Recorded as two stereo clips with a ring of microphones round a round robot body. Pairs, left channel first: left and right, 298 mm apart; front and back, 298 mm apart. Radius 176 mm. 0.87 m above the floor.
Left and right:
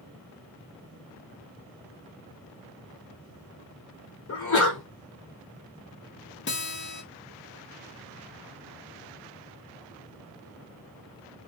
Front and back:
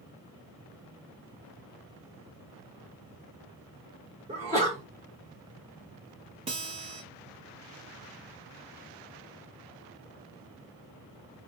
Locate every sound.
4.3 s a sneeze: 115° left, 0.9 m
6.5 s a guitar: 120° left, 0.9 m